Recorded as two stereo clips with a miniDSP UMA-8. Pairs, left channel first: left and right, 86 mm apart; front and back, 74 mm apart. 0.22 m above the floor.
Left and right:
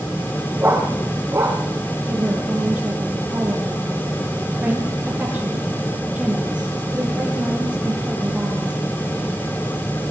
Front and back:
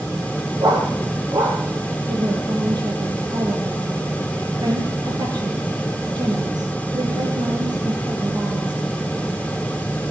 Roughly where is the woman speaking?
Behind.